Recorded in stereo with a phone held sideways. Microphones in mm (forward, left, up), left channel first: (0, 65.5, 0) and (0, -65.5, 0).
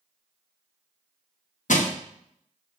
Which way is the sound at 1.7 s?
75° left (ahead or behind).